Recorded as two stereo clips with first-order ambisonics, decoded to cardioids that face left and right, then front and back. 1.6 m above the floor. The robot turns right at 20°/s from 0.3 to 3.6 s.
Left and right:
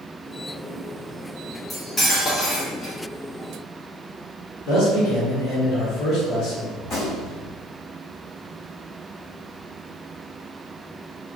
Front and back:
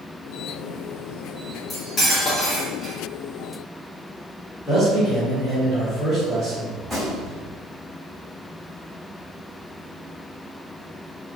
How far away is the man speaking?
About 1.0 m.